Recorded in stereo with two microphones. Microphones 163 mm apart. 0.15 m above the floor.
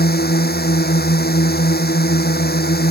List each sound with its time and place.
0.0 s a drone: 75° left (ahead or behind)